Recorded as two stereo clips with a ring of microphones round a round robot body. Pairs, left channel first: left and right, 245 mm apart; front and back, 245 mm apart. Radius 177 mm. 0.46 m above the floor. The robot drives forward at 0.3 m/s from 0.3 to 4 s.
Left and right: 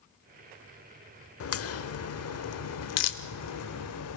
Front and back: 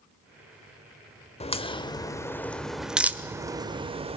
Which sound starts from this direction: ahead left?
A crack, at 1.4 s.